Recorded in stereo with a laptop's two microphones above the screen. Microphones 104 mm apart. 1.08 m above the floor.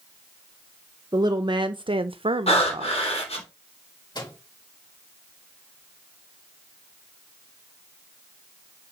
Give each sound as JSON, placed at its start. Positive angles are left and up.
{"t": 1.1, "sound": "a woman speaking", "side_deg": -40, "distance_m": 0.9}
{"t": 2.5, "sound": "breathing", "side_deg": 75, "distance_m": 3.0}
{"t": 4.2, "sound": "a microwave", "side_deg": 45, "distance_m": 3.5}